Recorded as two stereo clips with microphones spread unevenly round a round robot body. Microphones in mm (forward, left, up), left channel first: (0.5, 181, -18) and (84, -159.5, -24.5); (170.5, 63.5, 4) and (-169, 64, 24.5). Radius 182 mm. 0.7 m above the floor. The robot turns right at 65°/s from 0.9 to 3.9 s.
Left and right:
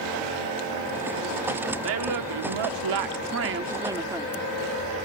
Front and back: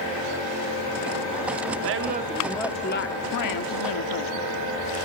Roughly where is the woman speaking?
Behind right.